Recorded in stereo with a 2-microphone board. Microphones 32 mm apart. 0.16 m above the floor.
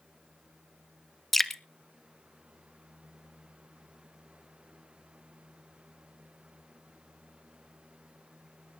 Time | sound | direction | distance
1.3 | dripping | 10° left (ahead or behind) | 0.7 m